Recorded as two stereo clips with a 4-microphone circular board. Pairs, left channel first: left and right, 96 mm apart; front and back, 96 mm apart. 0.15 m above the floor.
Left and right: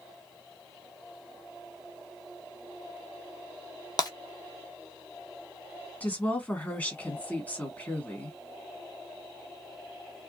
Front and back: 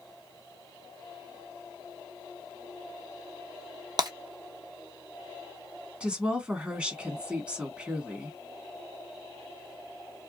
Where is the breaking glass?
135° left, 0.8 m.